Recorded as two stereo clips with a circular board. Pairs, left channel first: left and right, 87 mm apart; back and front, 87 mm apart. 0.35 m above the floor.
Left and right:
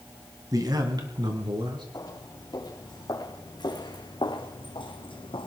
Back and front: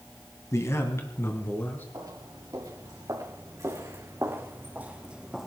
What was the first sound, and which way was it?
A man speaking, 130° right.